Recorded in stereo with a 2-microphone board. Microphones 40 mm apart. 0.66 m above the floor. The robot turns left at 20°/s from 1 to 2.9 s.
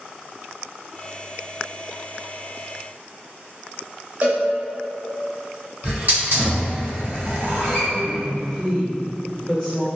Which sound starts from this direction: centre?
A woman speaking, at 7.9 s.